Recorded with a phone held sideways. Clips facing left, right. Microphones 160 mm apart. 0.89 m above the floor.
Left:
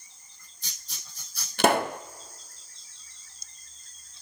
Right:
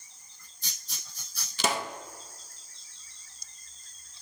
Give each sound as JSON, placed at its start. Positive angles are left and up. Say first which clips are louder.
{"t": 1.6, "sound": "a pop", "louder": "left 8 dB", "side_deg": 60, "distance_m": 0.6}